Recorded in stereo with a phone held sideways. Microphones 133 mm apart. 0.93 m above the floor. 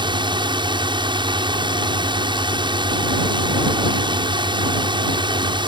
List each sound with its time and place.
0.0 s a drone: 35° right (ahead or behind)